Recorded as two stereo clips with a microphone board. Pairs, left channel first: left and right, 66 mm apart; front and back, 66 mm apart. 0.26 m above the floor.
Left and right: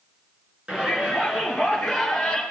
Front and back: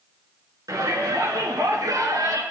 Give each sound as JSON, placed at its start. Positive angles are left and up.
{"t": 0.7, "sound": "a shout", "azimuth_deg": -165, "distance_m": 4.0}